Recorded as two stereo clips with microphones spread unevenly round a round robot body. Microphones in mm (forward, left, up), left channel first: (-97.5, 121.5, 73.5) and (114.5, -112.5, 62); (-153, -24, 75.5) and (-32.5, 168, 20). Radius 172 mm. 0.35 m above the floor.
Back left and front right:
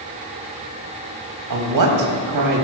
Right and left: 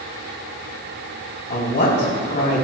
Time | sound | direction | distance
1.5 | a woman speaking | 65° right | 2.5 m